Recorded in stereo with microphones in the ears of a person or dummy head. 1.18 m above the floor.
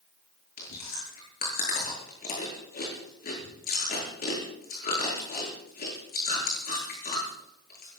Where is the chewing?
45° left (ahead or behind), 9.5 m.